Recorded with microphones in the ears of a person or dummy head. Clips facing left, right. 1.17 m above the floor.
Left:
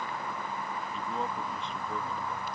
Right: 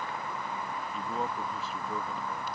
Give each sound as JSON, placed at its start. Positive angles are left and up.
{"t": 0.9, "sound": "a man speaking", "side_deg": -5}